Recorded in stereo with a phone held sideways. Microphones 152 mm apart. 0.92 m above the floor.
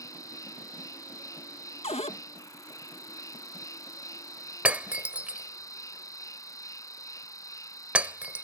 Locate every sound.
0.0 s an insect: 25° left (ahead or behind)
1.8 s a cupboard door: 45° left (ahead or behind)
4.7 s breaking glass: 10° right (ahead or behind)